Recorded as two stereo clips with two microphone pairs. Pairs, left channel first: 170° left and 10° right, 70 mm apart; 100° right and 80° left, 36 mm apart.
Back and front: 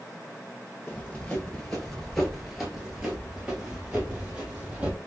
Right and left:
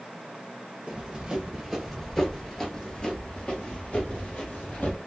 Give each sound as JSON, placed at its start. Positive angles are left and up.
{"t": 0.9, "sound": "running footsteps", "azimuth_deg": 105, "distance_m": 1.4}